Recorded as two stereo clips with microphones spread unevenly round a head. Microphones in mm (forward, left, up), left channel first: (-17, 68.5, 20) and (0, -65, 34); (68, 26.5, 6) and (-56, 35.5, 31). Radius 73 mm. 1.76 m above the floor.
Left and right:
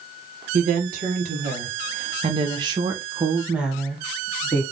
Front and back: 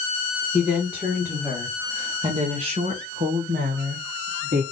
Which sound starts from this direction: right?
A woman speaking, at 0.5 s.